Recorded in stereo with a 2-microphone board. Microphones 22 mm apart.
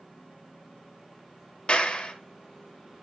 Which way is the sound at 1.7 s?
55° left (ahead or behind).